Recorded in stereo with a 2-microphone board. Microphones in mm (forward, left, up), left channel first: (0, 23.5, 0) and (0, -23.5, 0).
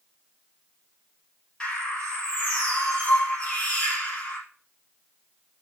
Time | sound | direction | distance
1.6 | a bird | 20° left (ahead or behind) | 3 m